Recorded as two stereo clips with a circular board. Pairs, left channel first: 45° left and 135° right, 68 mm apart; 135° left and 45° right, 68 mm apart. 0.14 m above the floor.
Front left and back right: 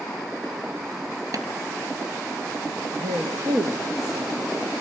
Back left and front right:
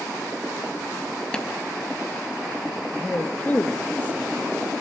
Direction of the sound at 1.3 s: 150° right.